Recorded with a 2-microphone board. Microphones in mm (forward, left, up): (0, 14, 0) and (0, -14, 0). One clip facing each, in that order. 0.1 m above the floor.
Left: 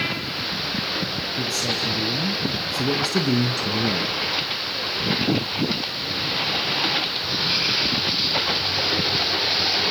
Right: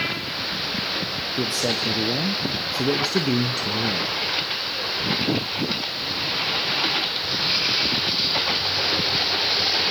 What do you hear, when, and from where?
1.4 s a man speaking: 55° right (ahead or behind), 2 m; by 4.2 s 15° left (ahead or behind), 1.4 m